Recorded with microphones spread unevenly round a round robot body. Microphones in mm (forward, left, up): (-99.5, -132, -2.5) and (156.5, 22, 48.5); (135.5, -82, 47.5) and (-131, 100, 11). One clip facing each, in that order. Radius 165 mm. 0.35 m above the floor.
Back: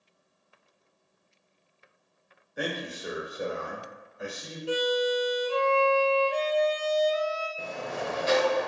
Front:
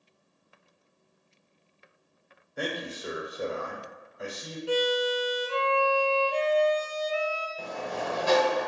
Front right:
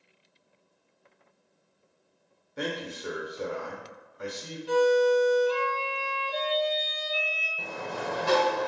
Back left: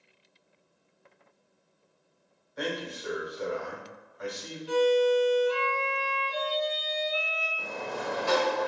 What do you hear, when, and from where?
2.6 s a man speaking: 75° right, 1.0 m
4.7 s a violin: 80° right, 0.9 m
7.6 s a sliding door: 80° right, 1.2 m